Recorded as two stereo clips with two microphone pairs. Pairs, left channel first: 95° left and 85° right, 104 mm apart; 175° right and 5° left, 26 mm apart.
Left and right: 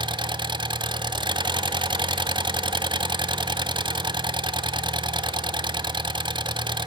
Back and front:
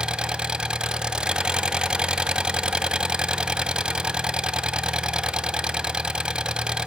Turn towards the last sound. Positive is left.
turn(degrees=-50)